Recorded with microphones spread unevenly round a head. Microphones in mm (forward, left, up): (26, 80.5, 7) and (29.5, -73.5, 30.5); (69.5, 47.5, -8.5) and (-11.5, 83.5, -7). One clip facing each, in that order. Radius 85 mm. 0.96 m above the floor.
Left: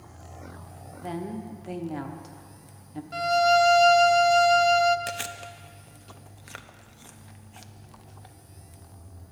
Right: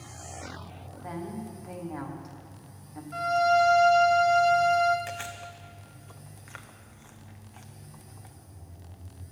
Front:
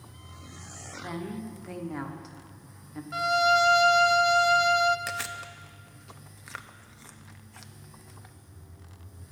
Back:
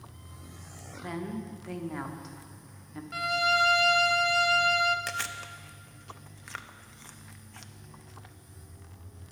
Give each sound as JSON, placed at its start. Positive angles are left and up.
{"t": 0.9, "sound": "a woman speaking", "azimuth_deg": 65, "distance_m": 0.9}
{"t": 3.1, "sound": "a violin", "azimuth_deg": 40, "distance_m": 0.5}
{"t": 5.1, "sound": "chewing", "azimuth_deg": 60, "distance_m": 0.6}